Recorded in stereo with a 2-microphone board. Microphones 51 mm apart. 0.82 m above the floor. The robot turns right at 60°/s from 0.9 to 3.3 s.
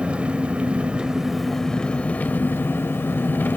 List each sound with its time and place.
0.0 s an engine running: 30° right, 0.7 m; by 3.6 s 110° left, 0.7 m